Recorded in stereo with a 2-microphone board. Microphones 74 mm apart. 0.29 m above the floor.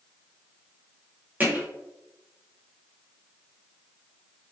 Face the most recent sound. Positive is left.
turn(degrees=-20)  # may be behind; listen again after turning